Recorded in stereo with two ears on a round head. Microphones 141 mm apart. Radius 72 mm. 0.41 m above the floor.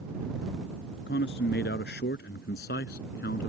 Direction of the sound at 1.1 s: 80° left.